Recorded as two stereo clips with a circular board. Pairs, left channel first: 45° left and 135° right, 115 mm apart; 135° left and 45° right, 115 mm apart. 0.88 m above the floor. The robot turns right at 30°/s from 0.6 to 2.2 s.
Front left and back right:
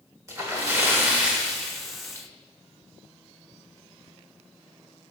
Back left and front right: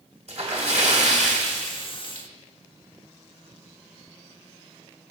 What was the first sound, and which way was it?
A splash, 75° right.